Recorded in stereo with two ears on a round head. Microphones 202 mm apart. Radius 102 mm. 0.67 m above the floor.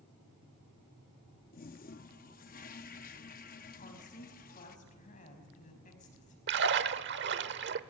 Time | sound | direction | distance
1.5 | a toilet flushing | 40° left (ahead or behind) | 0.7 m
3.8 | a woman speaking | 35° left (ahead or behind) | 5 m
6.5 | a splash | 55° right (ahead or behind) | 0.9 m